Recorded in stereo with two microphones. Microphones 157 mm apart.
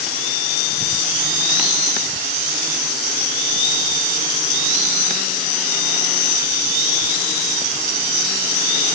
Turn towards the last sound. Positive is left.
No sound to turn to.